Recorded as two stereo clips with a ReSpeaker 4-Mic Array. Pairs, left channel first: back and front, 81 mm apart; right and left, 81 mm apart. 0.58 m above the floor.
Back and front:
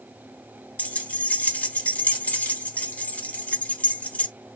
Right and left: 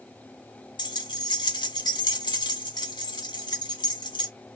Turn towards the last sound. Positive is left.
turn(degrees=-110)